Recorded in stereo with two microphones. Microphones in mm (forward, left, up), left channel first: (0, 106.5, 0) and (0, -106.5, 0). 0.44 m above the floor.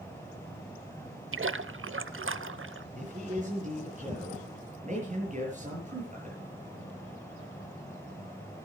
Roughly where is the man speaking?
Right.